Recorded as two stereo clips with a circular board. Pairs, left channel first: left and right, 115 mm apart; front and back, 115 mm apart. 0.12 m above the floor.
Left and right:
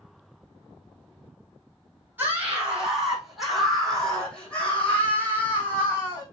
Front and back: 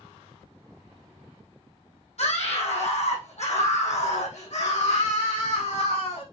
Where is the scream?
15° right, 4.5 m; by 6.2 s 20° left, 6 m.